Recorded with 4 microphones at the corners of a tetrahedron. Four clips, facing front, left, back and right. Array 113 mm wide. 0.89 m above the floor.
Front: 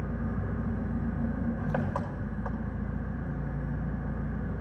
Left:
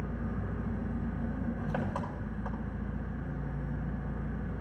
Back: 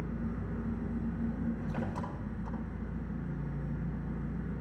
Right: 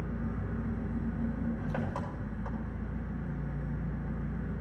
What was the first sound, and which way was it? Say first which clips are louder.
An engine running: even, front 3 dB; 10° left.